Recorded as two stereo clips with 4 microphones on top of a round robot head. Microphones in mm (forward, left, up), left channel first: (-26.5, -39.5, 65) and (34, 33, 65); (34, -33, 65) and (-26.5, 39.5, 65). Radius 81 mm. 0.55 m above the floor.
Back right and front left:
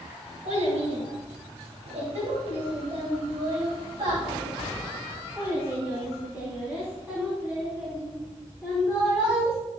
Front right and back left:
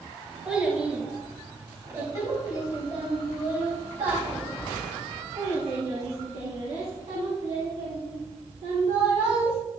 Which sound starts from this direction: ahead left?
A child speaking, at 0.5 s.